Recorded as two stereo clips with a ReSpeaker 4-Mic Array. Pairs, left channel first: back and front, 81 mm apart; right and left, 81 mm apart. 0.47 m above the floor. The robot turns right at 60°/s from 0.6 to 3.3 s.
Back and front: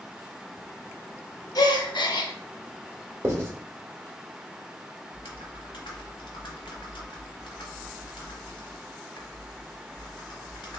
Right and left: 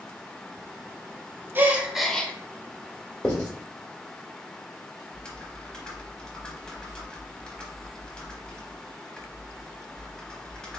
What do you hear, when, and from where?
1.6 s a gasp: 150° left, 0.6 m; by 2.3 s 160° right, 0.6 m
3.2 s writing: 30° right, 1.5 m; by 3.5 s 25° right, 1.5 m
5.1 s typing on a keyboard: 170° right, 0.9 m